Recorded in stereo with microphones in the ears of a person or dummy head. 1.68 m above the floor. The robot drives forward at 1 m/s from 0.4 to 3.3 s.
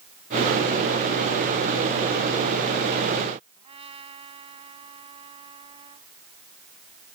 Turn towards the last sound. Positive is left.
turn(degrees=-35)  # may be behind; listen again after turning